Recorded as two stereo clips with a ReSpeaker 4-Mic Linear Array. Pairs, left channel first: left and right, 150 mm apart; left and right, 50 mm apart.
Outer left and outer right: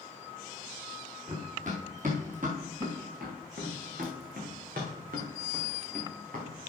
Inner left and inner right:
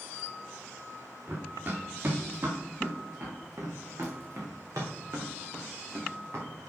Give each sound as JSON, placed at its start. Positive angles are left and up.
{"t": 1.3, "sound": "running footsteps", "side_deg": -50, "distance_m": 4.0}